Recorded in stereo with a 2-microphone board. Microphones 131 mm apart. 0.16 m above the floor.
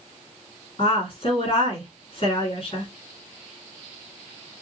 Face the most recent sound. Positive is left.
turn(degrees=45)  # may be behind; listen again after turning